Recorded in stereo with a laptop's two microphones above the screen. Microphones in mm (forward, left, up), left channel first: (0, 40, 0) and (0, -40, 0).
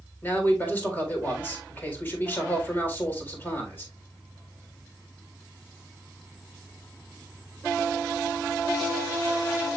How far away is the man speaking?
About 3.5 m.